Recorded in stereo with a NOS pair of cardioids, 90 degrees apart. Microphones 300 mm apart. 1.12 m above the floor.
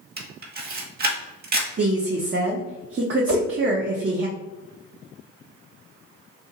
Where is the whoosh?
65° right, 1.3 m.